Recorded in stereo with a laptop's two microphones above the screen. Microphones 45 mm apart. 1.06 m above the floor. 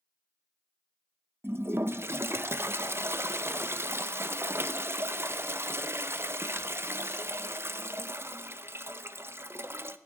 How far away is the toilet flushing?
About 0.7 m.